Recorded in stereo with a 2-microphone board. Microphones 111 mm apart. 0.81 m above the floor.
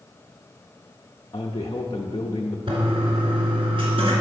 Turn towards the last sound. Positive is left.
turn(degrees=-55)  # may be behind; listen again after turning